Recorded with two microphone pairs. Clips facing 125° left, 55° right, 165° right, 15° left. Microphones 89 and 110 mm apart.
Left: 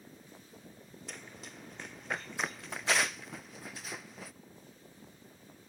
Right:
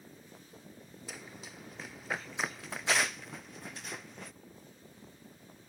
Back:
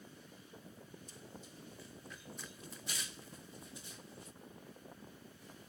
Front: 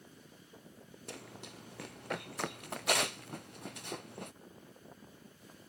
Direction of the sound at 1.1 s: 30° left.